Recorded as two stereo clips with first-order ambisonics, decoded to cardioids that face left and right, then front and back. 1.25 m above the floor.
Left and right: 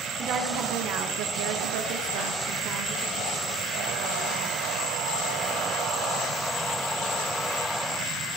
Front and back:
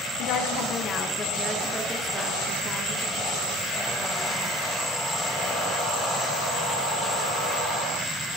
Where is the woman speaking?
35° right, 1.0 m; by 4.7 s 145° right, 2 m.